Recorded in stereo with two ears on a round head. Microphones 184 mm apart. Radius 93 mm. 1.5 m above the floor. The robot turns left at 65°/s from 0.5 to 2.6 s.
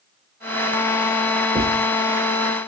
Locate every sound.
1.6 s writing: 5° left (ahead or behind), 1.3 m; by 1.8 s 25° left (ahead or behind), 1.3 m